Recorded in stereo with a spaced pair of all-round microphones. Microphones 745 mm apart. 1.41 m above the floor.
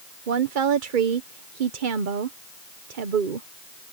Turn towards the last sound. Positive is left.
turn(degrees=-80)